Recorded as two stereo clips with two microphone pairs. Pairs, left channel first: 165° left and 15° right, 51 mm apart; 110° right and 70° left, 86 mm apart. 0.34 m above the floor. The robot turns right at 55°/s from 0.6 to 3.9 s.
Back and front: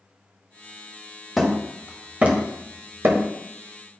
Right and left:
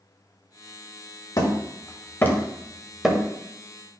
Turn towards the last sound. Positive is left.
turn(degrees=30)